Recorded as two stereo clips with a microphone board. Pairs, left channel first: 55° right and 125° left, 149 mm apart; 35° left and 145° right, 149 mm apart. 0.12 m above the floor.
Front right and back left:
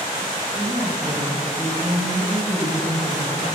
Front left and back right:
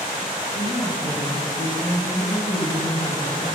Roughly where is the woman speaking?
Ahead left.